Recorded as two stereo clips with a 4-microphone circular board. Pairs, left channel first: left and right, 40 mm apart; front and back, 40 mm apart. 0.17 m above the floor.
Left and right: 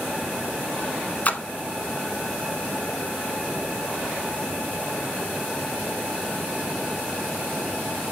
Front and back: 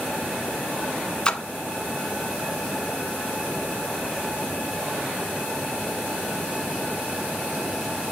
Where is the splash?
60° left, 0.7 m.